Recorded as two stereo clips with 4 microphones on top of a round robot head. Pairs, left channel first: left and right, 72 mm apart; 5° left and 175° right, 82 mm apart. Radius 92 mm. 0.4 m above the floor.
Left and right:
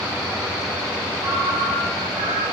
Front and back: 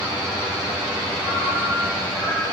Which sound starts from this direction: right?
A ringtone, at 1.2 s.